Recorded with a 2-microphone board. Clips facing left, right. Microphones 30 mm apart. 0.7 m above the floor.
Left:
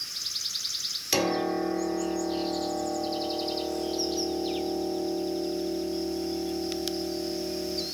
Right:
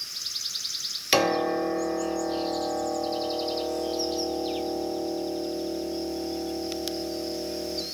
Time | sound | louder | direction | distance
1.1 | a piano | right 4 dB | 35° right (ahead or behind) | 1.1 m